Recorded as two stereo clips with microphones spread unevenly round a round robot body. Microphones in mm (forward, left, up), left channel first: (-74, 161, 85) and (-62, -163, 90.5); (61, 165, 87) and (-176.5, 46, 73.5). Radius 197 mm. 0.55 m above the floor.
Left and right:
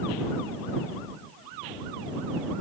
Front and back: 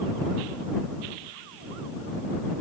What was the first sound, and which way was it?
Only background noise.